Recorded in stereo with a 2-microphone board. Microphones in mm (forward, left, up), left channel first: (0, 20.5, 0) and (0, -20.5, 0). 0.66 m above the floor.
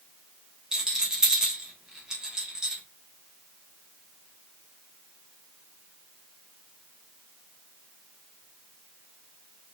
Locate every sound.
0.7 s a rattle: 15° right (ahead or behind), 1.1 m